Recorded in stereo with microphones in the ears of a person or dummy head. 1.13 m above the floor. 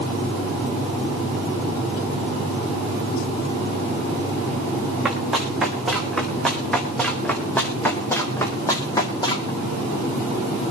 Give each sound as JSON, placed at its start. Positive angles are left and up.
{"t": 5.0, "sound": "running footsteps", "side_deg": -5, "distance_m": 5.5}